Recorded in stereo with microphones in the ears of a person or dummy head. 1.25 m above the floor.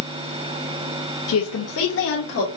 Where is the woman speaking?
75° left (ahead or behind), 1.1 m.